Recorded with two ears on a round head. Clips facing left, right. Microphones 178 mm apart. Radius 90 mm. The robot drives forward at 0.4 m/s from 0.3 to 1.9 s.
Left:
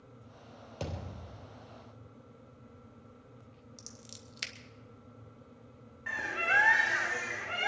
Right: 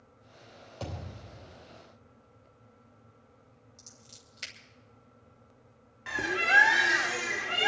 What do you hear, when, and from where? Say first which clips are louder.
0.8 s a thud: even; 30° left (ahead or behind), 3.5 m
3.8 s scissors: left 5 dB; 60° left (ahead or behind), 2 m
6.1 s a bird: right 5 dB; 50° right (ahead or behind), 1.1 m